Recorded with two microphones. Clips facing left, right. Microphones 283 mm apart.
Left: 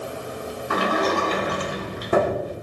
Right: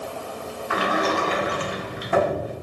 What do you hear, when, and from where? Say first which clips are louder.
0.7 s a sliding door: left 1 dB; 45° left (ahead or behind), 0.6 m